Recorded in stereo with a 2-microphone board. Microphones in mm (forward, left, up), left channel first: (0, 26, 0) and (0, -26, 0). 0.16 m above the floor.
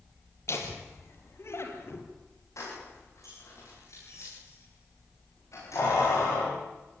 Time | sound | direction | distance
0.5 | laughter | 60° left (ahead or behind) | 4.5 m
2.6 | keys jangling | 75° left (ahead or behind) | 9.5 m